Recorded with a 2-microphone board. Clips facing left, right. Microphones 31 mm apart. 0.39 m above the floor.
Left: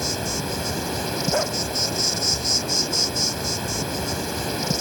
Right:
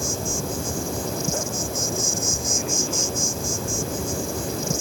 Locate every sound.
0.0 s an insect: 45° left (ahead or behind)
1.3 s a dog barking: 40° left (ahead or behind)